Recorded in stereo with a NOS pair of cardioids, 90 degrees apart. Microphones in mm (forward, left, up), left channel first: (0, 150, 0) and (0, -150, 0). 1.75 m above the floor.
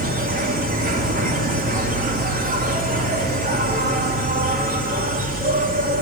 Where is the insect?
30° right, 3 m.